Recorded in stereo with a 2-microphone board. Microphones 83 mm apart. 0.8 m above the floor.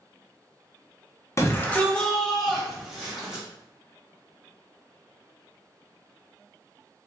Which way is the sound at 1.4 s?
35° left (ahead or behind).